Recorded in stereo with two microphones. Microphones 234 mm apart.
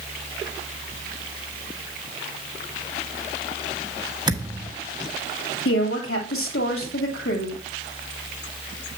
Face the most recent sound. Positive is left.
turn(degrees=65)  # may be behind; listen again after turning